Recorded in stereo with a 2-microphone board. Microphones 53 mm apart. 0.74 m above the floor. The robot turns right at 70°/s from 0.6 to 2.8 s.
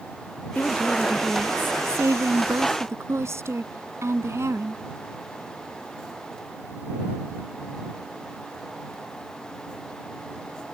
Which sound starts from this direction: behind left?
A woman speaking, at 0.6 s.